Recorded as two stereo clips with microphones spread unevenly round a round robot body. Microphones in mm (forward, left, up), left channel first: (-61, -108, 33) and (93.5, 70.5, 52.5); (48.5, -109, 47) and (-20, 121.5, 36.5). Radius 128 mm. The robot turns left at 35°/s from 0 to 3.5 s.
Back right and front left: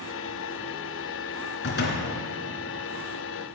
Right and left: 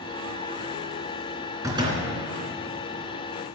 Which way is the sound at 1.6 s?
175° right.